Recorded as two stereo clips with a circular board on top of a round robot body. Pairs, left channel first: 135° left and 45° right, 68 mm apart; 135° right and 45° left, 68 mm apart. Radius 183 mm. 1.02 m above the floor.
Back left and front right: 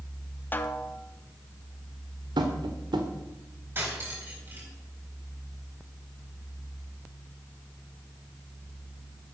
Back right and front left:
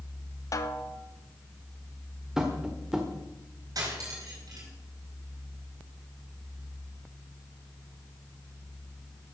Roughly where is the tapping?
Ahead right.